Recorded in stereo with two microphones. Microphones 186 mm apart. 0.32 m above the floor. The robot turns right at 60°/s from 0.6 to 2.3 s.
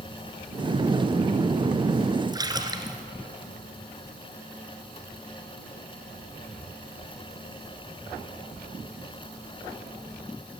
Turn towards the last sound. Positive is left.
turn(degrees=-20)  # may be behind; listen again after turning